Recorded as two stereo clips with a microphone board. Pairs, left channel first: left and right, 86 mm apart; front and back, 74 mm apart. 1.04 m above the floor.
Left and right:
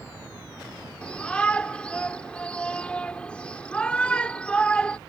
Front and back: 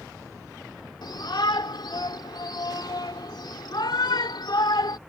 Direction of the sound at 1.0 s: 15° left.